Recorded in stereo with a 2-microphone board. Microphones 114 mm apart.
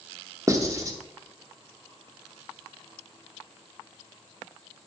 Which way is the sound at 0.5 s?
30° right (ahead or behind).